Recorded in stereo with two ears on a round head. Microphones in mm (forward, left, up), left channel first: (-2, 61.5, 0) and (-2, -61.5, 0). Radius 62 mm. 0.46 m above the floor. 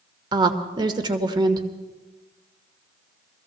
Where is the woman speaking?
30° right (ahead or behind), 1.3 m.